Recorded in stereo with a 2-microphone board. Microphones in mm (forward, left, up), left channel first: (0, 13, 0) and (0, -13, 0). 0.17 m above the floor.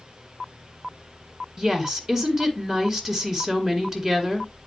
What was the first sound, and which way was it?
A woman speaking, 25° right (ahead or behind).